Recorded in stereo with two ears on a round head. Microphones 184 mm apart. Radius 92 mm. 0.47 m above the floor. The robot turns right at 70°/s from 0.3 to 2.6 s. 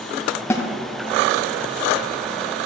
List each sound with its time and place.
0.5 s a snare drum: 15° left (ahead or behind), 1.0 m; by 0.7 s 25° left (ahead or behind), 1.0 m